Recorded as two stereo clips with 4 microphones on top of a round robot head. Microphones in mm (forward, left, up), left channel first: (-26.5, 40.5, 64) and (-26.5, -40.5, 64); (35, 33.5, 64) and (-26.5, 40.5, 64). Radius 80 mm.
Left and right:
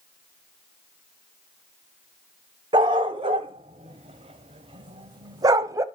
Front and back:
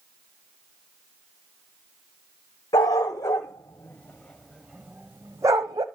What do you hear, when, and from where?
2.7 s a dog barking: 50° right, 1.3 m; by 5.8 s 140° right, 1.0 m